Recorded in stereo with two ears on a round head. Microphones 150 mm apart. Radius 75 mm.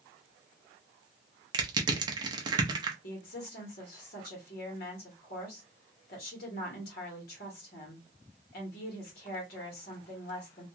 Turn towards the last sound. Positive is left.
turn(degrees=60)  # may be behind; listen again after turning